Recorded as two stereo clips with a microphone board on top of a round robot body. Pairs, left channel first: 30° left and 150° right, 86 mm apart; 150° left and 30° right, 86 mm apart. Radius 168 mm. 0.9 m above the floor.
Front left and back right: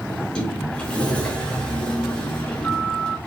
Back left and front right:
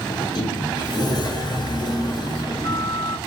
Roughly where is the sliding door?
Left.